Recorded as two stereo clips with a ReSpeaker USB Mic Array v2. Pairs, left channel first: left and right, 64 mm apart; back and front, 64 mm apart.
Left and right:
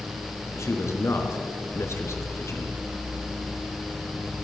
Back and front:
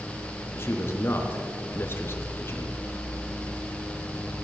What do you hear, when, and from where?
0.5 s a man speaking: 130° left, 4 m